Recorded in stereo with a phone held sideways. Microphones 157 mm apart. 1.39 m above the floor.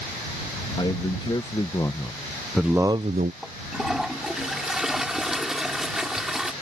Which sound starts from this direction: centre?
A toilet flushing, at 3.4 s.